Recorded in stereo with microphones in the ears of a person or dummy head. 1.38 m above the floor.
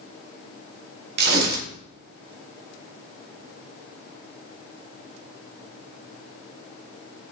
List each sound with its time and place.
1.2 s tearing paper: 60° right (ahead or behind), 0.8 m